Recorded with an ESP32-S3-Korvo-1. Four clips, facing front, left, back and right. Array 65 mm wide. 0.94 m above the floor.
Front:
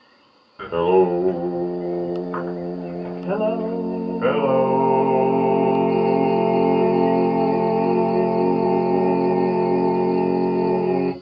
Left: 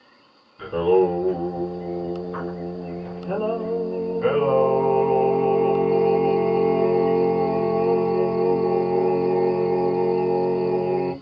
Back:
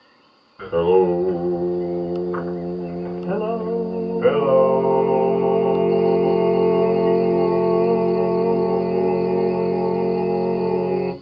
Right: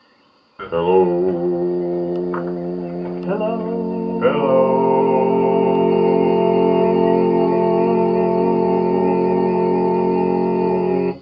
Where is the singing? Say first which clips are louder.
Right 4 dB, even; 75° right, 2 m.